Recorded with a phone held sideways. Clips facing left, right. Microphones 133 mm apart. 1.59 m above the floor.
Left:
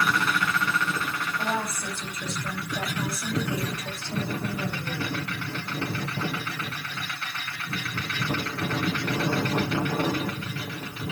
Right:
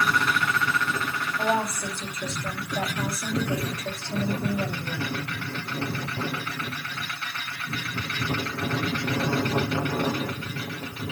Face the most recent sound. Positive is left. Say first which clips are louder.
# right 6 dB
turn(degrees=-30)  # may be behind; listen again after turning